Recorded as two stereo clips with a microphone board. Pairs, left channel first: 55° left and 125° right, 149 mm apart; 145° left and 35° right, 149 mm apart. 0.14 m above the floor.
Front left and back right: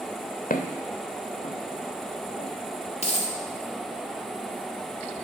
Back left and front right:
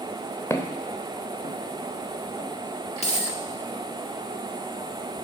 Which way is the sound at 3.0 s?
100° left.